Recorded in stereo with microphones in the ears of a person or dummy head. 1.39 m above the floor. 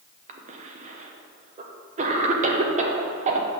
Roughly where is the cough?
Right.